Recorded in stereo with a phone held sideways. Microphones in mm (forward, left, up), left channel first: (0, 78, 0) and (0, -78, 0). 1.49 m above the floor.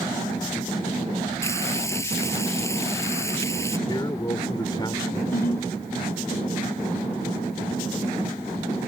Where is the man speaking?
30° left (ahead or behind).